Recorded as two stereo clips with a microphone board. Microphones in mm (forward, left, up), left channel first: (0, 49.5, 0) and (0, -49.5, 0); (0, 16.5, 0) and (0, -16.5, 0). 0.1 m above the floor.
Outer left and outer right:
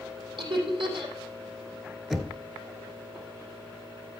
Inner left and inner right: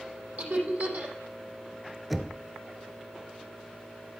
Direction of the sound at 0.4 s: 60° right (ahead or behind).